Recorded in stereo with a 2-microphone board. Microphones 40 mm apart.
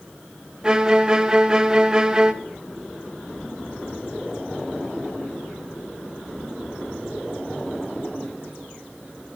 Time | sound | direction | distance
0.6 | a violin | 20° right (ahead or behind) | 0.5 m